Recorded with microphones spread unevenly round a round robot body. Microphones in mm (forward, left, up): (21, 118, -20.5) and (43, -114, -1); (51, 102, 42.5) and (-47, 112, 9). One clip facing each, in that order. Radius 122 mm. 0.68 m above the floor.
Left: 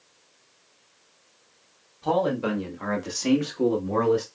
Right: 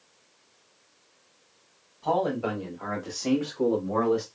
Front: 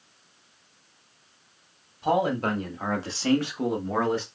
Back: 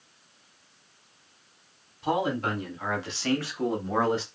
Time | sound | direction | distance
2.0 | a man speaking | 35° left | 2.0 m